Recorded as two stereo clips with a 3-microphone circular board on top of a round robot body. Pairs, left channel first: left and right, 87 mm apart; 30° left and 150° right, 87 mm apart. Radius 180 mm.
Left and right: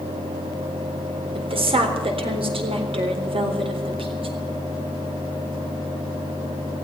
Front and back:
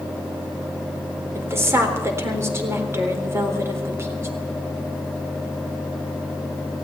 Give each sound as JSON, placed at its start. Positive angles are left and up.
{"t": 1.4, "sound": "a woman speaking", "azimuth_deg": -90, "distance_m": 4.0}